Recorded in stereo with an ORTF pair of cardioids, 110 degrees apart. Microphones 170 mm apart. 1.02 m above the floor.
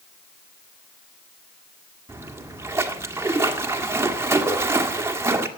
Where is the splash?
15° right, 1.6 m.